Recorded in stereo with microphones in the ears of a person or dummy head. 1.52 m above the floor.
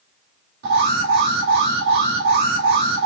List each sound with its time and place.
0.6 s an alarm: 75° right (ahead or behind), 2.5 m